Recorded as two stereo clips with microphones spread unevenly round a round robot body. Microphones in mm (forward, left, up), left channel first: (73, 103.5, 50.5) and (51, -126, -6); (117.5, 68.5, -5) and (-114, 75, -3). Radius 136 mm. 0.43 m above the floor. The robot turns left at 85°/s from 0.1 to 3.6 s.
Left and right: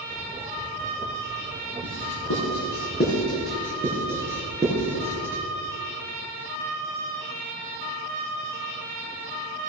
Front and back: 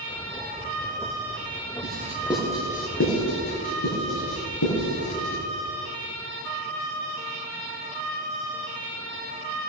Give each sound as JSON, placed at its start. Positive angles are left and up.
{"t": 1.8, "sound": "writing", "azimuth_deg": 135, "distance_m": 5.0}